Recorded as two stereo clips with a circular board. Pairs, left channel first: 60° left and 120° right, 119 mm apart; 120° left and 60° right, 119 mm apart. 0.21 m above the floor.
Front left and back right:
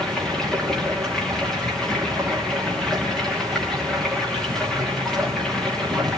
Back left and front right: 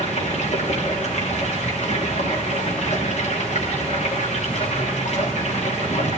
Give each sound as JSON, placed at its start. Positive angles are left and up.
{"t": 0.0, "sound": "running water", "azimuth_deg": 145, "distance_m": 5.0}